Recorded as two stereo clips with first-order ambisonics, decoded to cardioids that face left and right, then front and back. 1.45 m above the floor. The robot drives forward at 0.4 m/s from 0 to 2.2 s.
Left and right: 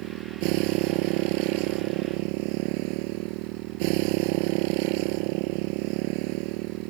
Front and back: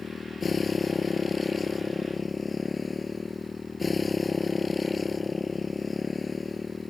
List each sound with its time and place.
0.0 s a motorcycle: 75° right; by 6.9 s 80° right